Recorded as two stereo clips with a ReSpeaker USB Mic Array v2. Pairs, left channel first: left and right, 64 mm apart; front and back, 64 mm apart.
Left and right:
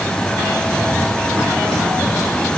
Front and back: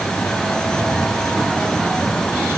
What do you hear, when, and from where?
Only background noise.